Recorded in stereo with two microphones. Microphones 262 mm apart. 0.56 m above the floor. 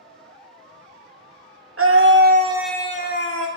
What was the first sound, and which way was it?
A scream, 60° right (ahead or behind).